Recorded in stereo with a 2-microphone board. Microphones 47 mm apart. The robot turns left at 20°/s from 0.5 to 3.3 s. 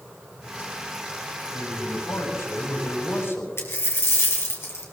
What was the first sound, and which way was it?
A man speaking, 100° left.